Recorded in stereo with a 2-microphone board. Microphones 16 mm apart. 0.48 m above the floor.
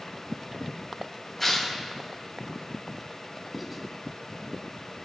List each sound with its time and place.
1.4 s tearing paper: 10° left (ahead or behind), 3.5 m
3.5 s writing: 5° right (ahead or behind), 1.5 m